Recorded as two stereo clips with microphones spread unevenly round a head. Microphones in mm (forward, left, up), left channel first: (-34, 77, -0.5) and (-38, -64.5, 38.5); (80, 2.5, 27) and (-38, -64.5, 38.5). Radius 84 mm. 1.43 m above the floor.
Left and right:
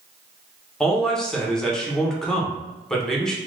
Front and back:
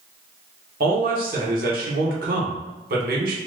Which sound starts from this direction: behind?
A man speaking, at 0.8 s.